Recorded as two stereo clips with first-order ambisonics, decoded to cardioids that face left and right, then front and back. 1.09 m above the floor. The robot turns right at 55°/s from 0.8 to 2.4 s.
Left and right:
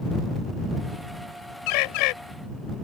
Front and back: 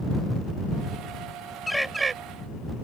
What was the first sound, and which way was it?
A bird, 85° left.